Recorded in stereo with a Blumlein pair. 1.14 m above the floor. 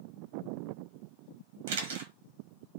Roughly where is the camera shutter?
Ahead right.